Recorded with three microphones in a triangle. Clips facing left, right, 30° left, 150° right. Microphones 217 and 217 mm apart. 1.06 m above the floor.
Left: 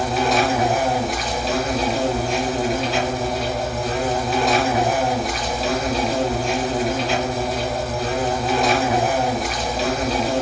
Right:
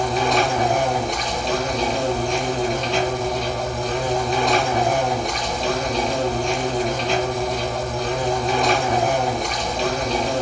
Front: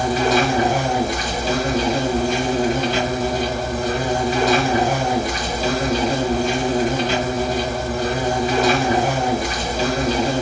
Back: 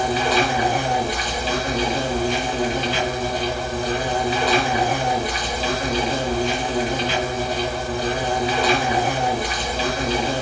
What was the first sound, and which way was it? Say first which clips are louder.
An insect: left 1 dB, front 3 dB; 5° left.